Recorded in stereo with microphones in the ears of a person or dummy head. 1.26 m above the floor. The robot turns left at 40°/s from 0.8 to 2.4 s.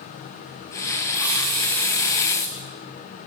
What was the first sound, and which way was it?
A hiss, 170° right.